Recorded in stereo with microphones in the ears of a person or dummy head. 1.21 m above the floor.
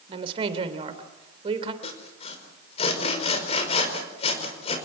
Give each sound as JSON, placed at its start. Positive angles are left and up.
{"t": 0.1, "sound": "a woman speaking", "side_deg": -30, "distance_m": 3.5}
{"t": 1.8, "sound": "sawing", "side_deg": 40, "distance_m": 5.0}